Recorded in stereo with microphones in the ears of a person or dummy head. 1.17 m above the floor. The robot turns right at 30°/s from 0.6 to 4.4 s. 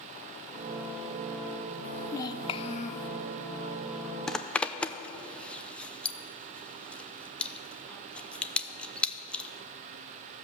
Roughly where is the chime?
I don't hear a chime.